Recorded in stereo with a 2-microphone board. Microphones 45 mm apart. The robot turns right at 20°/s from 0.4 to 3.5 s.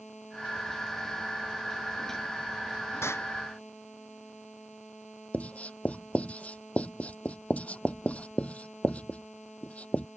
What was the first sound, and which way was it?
An explosion, 80° left.